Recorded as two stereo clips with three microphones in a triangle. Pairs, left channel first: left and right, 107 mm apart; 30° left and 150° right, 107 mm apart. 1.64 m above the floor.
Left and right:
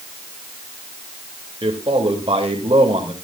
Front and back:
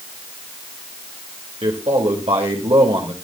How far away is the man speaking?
About 3 m.